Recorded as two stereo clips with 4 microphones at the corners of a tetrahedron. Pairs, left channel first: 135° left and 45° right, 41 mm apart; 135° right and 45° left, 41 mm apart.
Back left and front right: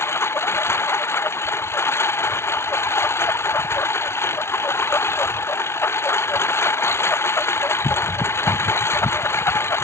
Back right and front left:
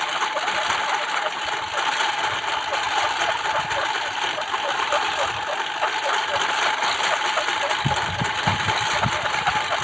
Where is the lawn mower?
130° left.